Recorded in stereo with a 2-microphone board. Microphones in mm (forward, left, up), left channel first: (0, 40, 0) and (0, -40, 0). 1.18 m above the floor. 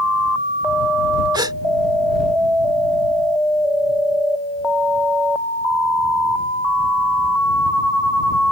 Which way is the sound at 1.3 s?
65° right (ahead or behind).